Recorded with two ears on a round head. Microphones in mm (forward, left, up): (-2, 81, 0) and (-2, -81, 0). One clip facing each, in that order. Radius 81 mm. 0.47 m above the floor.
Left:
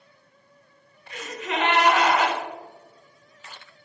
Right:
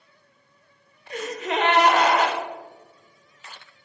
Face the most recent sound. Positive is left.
turn(degrees=-35)  # may be behind; listen again after turning